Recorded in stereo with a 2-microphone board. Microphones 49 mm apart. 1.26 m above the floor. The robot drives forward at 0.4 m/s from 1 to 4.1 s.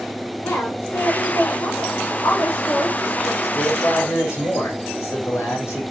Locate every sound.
0.4 s a woman speaking: 80° left, 3.5 m; by 3.3 s 70° left (ahead or behind), 3.5 m
3.4 s a man speaking: 85° left, 4 m; by 5.9 s 90° left, 4 m